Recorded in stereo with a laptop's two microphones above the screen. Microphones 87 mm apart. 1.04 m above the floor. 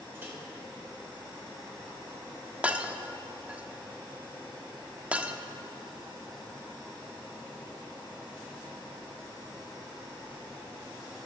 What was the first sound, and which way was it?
A microwave, 25° right (ahead or behind).